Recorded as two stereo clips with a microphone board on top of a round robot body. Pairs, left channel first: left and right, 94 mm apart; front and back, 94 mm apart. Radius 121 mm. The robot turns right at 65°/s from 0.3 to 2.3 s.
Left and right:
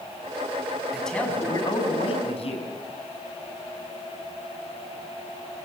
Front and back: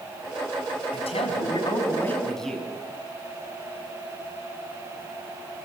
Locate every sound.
0.9 s a man speaking: 5° right, 4.5 m; by 2.7 s 85° left, 4.5 m